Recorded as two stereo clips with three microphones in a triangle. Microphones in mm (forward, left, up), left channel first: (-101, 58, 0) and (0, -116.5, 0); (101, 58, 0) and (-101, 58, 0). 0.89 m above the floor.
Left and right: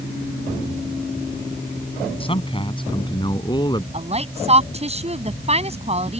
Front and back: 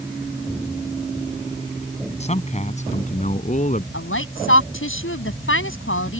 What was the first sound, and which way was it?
A man speaking, 55° left.